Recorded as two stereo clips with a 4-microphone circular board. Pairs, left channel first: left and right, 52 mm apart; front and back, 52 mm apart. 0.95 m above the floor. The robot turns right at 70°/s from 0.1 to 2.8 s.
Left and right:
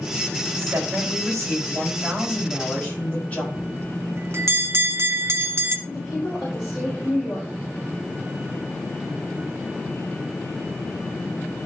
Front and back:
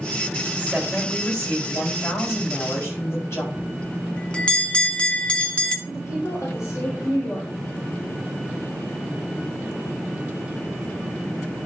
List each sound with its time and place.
0.6 s a woman speaking: 125° right, 5.5 m; by 3.4 s 30° left, 5.5 m
3.5 s a bell: 65° right, 1.2 m
5.9 s a woman speaking: 25° left, 4.5 m